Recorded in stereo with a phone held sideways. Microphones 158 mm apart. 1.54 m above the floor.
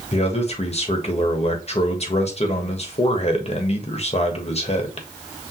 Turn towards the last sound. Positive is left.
turn(degrees=40)  # may be behind; listen again after turning